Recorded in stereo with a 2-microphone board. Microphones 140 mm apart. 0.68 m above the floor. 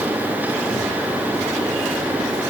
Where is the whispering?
No whispering in this recording.